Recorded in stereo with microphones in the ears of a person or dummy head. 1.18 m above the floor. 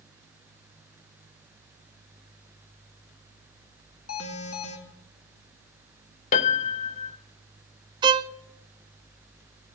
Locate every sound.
4.1 s an alarm: 75° left (ahead or behind), 3 m
6.3 s a piano: 45° left (ahead or behind), 0.8 m
8.0 s a violin: 20° right (ahead or behind), 0.5 m